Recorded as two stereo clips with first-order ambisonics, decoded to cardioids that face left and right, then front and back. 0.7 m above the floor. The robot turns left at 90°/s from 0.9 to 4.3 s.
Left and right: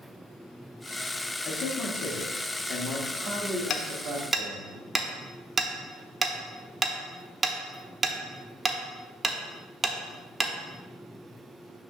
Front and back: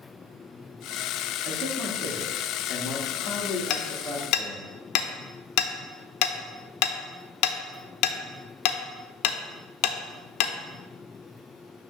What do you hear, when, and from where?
1.4 s a man speaking: 145° left, 1.0 m; by 4.7 s 110° right, 1.0 m
3.7 s hammering: 40° left, 0.6 m; by 10.5 s 15° right, 0.6 m